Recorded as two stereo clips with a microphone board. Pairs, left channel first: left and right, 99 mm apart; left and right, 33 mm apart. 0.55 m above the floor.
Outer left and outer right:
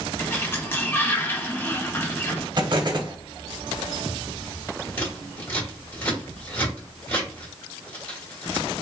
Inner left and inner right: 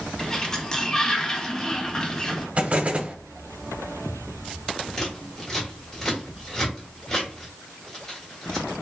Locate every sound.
0.2 s a sliding door: 20° left (ahead or behind), 0.6 m
2.6 s an explosion: 50° right (ahead or behind), 0.5 m
5.0 s scissors: 20° left (ahead or behind), 1.3 m